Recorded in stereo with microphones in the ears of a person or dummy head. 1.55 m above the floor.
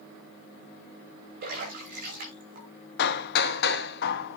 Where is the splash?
55° right (ahead or behind), 6.5 m.